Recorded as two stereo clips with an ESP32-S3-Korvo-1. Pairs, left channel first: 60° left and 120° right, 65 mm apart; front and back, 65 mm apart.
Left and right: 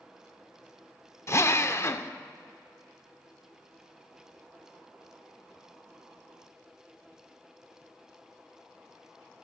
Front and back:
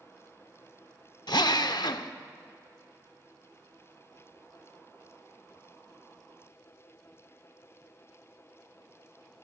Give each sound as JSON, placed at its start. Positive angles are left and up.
{"t": 1.3, "sound": "a drill", "azimuth_deg": 10, "distance_m": 0.6}